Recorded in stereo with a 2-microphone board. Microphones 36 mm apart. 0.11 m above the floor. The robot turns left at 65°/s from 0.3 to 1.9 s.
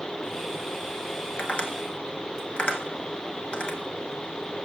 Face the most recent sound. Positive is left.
turn(degrees=30)  # may be behind; listen again after turning